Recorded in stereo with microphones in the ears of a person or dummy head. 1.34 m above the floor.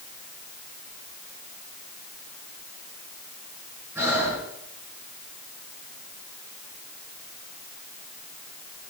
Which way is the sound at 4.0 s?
10° right (ahead or behind).